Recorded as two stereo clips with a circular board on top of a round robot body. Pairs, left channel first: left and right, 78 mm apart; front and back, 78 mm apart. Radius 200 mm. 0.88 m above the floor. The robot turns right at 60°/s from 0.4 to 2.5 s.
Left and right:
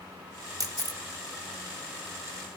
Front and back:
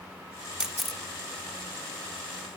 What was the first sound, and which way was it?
A camera shutter, 105° right.